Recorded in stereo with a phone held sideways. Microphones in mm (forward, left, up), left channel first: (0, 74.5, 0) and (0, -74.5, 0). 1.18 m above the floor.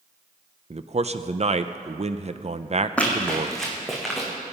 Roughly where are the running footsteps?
Centre.